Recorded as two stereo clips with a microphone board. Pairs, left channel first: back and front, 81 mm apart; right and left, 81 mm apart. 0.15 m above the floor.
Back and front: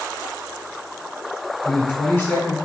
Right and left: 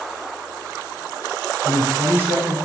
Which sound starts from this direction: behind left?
A man speaking, at 1.6 s.